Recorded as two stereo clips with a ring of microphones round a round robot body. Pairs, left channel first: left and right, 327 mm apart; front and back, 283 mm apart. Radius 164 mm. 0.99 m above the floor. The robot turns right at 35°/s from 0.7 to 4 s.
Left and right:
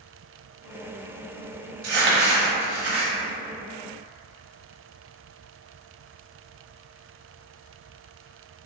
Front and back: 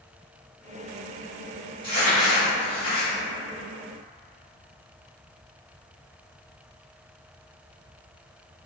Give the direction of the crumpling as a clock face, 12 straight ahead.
3 o'clock.